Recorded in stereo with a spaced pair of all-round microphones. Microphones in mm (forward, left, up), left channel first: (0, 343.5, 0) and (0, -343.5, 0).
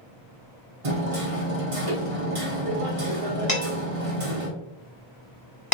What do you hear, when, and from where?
0.8 s hammering: 55° right (ahead or behind), 0.9 m
3.5 s dishes clattering: 45° left (ahead or behind), 1.5 m